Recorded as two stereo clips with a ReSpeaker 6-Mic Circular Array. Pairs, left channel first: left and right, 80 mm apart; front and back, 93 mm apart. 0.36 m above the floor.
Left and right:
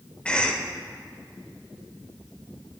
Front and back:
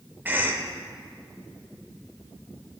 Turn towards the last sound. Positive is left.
turn(degrees=145)